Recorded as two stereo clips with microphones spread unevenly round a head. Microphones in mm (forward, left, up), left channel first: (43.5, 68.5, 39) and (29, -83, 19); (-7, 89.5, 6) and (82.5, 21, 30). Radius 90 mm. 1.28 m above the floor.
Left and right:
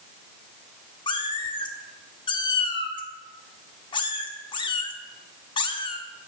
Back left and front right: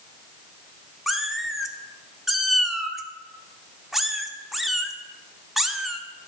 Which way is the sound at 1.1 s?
40° left.